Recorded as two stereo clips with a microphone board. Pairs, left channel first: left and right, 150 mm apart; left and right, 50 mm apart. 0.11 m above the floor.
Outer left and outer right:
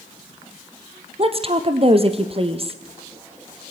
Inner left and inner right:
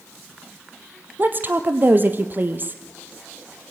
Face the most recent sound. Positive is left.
turn(degrees=-40)  # may be behind; listen again after turning